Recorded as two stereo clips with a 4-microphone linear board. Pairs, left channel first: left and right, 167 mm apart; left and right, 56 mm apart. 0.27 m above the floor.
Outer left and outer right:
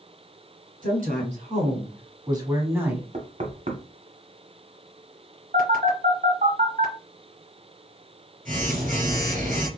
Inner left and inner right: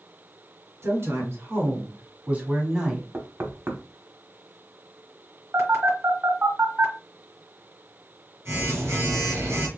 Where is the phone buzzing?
55° right (ahead or behind), 1.8 m.